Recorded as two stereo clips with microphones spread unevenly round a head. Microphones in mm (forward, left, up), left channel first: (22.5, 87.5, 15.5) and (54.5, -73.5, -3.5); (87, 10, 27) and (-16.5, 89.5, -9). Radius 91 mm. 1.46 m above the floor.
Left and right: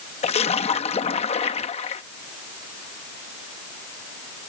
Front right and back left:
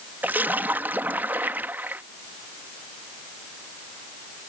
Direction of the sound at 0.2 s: 60° left.